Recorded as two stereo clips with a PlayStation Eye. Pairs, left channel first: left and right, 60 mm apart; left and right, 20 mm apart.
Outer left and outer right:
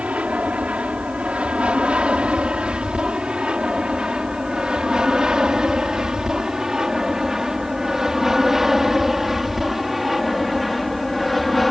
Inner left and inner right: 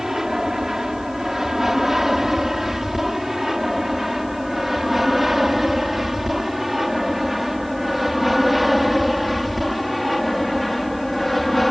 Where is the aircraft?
20° right (ahead or behind); by 11.7 s centre (ahead or behind).